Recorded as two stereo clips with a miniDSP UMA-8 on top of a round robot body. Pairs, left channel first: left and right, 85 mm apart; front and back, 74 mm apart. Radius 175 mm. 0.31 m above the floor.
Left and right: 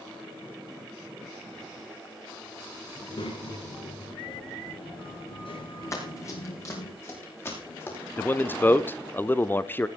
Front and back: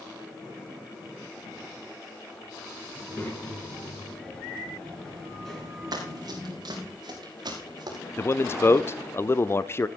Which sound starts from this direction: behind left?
Running footsteps, at 5.9 s.